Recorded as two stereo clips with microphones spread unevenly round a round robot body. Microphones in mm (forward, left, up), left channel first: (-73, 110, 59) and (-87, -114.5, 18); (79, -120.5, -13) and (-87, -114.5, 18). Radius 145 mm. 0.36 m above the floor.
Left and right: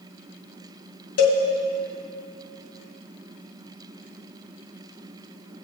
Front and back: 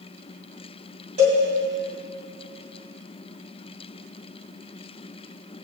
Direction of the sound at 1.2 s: 110° left.